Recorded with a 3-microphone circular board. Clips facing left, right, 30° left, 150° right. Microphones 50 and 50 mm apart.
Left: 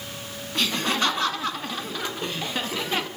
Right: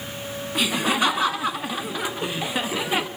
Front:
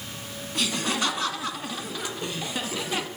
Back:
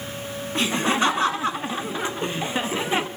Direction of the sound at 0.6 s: 155° right.